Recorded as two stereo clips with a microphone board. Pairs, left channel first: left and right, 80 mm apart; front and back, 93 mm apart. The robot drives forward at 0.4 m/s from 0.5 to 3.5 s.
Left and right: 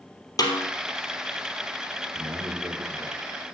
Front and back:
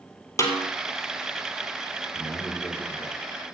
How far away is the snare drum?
About 3 m.